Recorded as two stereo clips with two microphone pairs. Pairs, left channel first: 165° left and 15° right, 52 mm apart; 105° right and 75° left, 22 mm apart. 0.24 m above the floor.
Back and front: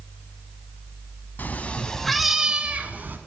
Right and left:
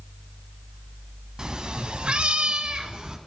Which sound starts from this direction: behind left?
A cat meowing, at 1.4 s.